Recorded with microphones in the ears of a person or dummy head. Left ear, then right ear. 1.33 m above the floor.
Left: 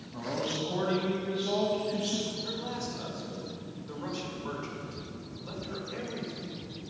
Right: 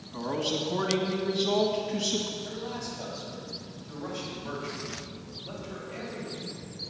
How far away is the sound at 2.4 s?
About 4.5 m.